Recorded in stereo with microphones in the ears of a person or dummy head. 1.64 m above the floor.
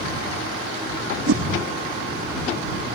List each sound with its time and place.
1.3 s a whoosh: 75° right (ahead or behind)